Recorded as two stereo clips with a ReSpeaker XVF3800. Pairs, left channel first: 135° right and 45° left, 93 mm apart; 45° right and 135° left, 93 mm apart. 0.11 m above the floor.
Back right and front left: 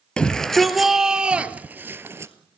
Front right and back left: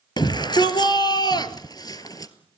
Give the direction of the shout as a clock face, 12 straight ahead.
2 o'clock.